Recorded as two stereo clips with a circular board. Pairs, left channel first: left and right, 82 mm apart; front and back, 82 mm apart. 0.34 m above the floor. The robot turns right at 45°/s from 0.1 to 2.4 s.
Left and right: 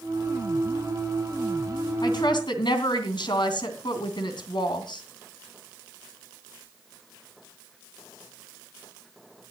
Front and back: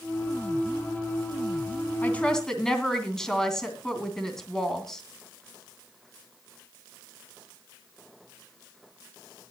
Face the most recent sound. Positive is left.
turn(degrees=80)